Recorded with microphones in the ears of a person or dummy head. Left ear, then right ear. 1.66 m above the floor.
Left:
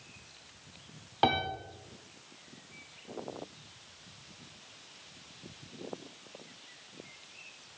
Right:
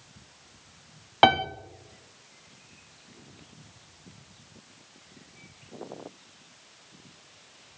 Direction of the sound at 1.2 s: 55° right (ahead or behind).